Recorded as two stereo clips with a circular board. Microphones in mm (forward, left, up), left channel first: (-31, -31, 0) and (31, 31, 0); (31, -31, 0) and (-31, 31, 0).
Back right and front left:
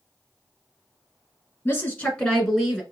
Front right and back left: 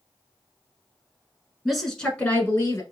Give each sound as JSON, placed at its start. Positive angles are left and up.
{"t": 1.6, "sound": "a woman speaking", "azimuth_deg": -140, "distance_m": 1.2}